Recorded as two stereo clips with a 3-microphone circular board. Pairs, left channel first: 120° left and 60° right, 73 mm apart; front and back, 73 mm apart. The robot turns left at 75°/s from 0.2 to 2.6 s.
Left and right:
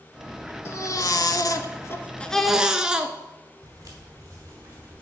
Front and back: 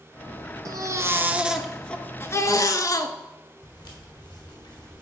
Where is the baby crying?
165° left, 0.6 m; by 3.1 s 20° left, 0.6 m.